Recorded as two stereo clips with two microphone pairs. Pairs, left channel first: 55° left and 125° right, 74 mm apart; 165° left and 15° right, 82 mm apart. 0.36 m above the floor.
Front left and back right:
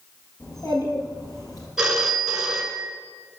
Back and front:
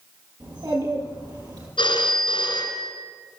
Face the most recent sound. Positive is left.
turn(degrees=150)